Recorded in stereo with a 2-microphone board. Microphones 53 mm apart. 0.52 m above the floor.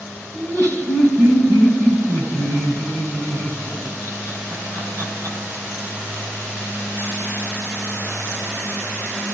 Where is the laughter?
65° right (ahead or behind), 4 m.